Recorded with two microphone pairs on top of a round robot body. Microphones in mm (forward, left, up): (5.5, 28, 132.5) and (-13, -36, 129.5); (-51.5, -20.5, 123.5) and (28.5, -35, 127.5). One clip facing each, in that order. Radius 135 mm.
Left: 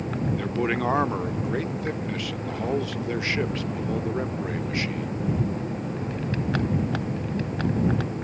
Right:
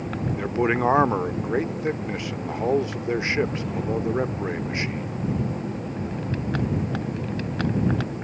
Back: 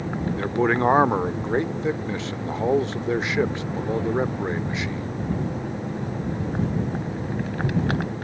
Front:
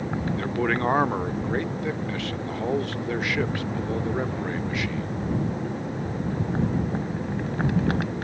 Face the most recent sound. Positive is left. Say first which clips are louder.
# right 5 dB, back 5 dB
turn(degrees=-150)